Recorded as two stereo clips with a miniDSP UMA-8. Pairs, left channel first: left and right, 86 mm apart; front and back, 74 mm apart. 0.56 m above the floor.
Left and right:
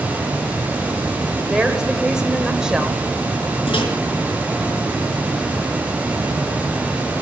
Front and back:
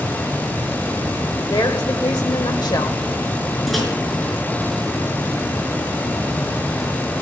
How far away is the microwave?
About 6 m.